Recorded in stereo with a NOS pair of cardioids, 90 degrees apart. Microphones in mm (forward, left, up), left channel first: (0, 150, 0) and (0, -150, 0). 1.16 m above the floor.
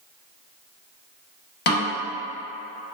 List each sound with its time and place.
1.7 s a snare drum: 35° left, 1.1 m